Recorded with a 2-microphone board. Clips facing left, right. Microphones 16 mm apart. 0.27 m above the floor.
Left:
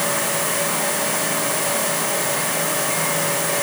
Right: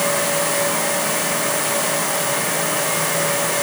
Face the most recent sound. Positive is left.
No sound to turn to.